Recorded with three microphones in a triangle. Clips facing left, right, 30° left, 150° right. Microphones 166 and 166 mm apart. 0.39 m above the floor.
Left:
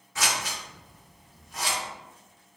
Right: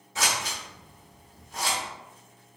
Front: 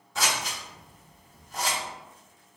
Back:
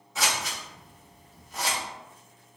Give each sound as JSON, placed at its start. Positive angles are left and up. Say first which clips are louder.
{"t": 0.1, "sound": "scissors", "louder": "even, even", "azimuth_deg": -65, "distance_m": 1.2}